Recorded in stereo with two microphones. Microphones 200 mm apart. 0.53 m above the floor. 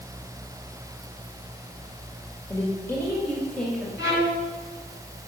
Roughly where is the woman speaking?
Centre.